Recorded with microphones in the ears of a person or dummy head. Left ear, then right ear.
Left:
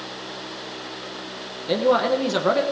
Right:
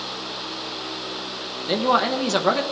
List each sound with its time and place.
1.7 s a man speaking: 10° right (ahead or behind), 0.9 m